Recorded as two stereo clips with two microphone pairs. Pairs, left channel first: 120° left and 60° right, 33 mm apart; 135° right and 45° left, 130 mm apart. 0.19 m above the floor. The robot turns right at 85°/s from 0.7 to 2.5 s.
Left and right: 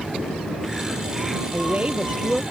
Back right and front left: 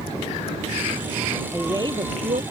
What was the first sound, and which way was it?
A woman speaking, 40° right.